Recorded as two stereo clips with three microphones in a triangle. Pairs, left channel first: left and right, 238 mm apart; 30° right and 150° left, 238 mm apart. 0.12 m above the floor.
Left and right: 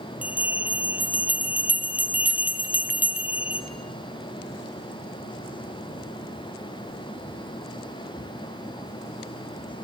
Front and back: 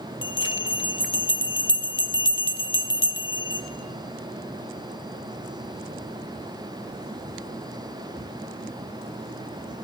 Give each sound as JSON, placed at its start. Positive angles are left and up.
{"t": 0.2, "sound": "a bell", "azimuth_deg": -5, "distance_m": 0.8}